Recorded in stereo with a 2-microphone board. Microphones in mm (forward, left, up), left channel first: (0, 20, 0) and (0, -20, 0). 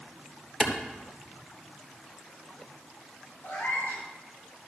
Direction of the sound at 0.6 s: 10° left (ahead or behind).